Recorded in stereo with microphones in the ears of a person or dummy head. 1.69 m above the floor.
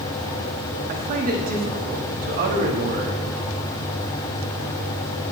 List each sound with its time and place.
0.9 s a man speaking: 45° right (ahead or behind), 1.3 m